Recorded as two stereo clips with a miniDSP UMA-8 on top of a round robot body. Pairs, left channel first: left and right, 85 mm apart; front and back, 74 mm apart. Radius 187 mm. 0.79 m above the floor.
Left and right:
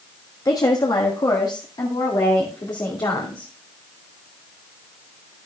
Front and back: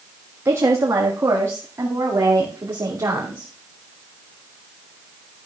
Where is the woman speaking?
130° left, 1.6 m; by 3.5 s 125° left, 3 m.